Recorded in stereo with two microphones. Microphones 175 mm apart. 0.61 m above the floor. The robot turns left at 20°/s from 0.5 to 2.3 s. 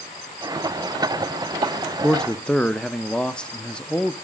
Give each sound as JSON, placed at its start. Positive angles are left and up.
{"t": 2.0, "sound": "a man speaking", "side_deg": 0, "distance_m": 0.7}